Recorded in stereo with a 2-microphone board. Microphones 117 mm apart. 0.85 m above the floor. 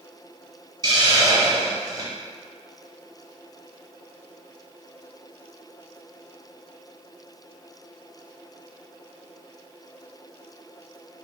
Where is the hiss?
35° right (ahead or behind), 0.8 m.